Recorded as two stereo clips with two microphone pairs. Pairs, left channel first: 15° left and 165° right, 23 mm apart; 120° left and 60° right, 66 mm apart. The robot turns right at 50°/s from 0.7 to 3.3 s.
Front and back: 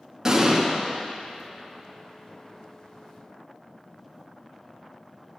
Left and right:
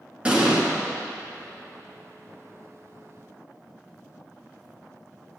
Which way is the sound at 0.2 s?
115° right.